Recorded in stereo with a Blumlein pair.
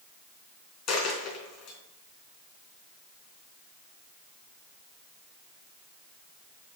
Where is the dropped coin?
30° left, 4 m.